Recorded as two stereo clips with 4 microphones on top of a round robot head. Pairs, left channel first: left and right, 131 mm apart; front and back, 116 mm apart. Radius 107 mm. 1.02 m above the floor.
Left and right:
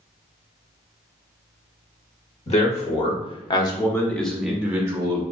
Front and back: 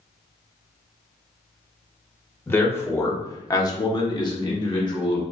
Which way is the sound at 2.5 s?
75° left.